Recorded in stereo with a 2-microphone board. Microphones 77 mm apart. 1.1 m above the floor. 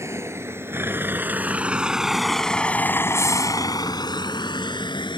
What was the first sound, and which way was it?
A vehicle, 35° right (ahead or behind).